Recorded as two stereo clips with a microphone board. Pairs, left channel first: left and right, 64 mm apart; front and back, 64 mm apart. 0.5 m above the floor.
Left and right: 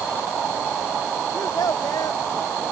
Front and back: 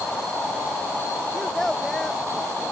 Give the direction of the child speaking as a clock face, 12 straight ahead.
9 o'clock.